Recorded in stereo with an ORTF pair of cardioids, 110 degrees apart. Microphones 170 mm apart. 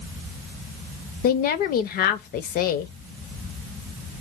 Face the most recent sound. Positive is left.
turn(degrees=65)